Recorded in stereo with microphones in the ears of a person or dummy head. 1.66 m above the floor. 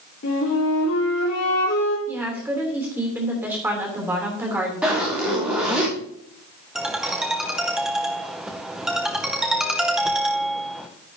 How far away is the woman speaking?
About 3 m.